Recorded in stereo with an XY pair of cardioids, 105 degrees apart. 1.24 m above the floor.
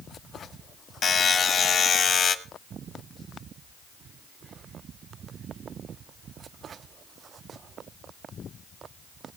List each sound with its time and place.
1.0 s a buzzer: 45° left, 1.5 m